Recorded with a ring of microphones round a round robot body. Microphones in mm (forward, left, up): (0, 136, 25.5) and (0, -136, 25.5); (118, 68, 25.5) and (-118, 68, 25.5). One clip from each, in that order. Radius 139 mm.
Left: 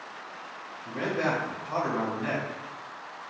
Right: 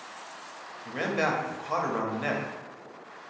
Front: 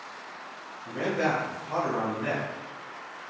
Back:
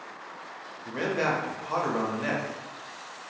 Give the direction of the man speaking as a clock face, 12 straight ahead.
4 o'clock.